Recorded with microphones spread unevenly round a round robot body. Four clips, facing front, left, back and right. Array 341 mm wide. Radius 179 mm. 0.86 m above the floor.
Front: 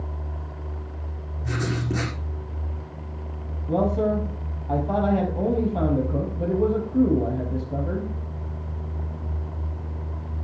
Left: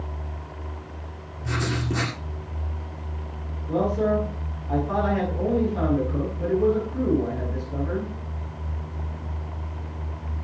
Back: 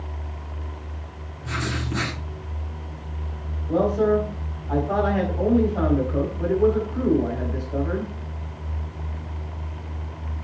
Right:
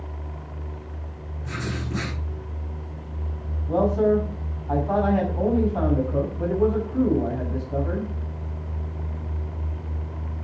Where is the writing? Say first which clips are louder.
Left 4 dB, front 1 dB; 35° left, 8 m.